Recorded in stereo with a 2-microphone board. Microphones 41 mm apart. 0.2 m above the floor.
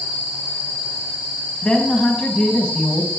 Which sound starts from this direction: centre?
A woman speaking, at 1.6 s.